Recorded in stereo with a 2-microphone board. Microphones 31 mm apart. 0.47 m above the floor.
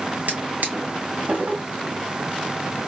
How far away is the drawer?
About 2.0 m.